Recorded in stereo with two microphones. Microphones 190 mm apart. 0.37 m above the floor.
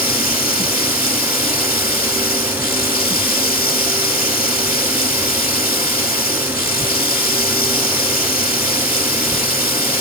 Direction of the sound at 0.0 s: 50° left (ahead or behind).